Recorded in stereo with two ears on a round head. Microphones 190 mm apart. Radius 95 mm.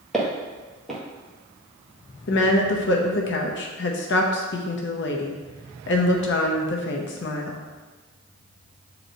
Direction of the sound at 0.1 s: Centre (ahead or behind).